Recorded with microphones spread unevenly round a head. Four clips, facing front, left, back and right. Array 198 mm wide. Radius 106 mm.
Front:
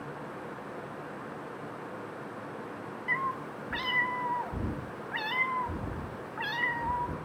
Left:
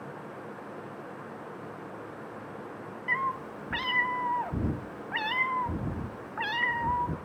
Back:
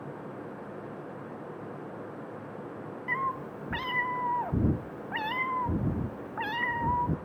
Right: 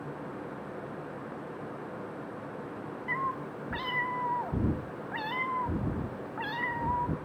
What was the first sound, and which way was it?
A cat meowing, 175° left.